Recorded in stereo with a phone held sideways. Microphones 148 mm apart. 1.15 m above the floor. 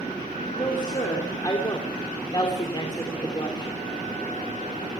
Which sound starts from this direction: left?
A woman speaking, at 0.6 s.